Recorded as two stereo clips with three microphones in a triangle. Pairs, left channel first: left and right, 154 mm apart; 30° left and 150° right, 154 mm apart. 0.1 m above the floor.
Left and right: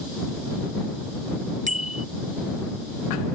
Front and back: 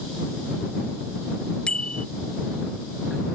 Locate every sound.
1.7 s a bicycle bell: 55° right